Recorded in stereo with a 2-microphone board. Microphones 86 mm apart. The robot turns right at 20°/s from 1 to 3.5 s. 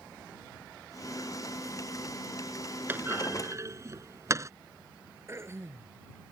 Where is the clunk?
25° right (ahead or behind); by 4.5 s 35° right (ahead or behind).